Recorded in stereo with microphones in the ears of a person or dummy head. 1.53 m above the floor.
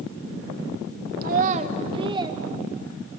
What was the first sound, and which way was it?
A child speaking, 50° right (ahead or behind).